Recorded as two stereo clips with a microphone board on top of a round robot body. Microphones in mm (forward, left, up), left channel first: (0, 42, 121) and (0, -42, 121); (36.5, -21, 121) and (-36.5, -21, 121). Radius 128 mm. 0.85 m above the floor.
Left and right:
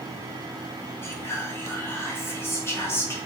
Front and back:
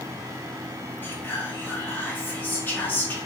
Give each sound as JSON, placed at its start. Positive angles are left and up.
{"t": 1.0, "sound": "whispering", "azimuth_deg": 50, "distance_m": 1.1}